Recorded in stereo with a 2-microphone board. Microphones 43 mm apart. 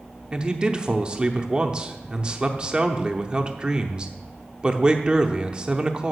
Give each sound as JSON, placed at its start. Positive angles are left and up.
{"t": 0.3, "sound": "a man speaking", "side_deg": -25, "distance_m": 0.7}